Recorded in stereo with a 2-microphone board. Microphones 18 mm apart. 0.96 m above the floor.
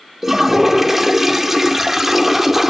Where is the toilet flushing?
15° right (ahead or behind), 0.9 m.